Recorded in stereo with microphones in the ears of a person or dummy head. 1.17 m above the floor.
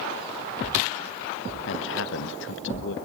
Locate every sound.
1.7 s a man speaking: 65° left (ahead or behind), 1.2 m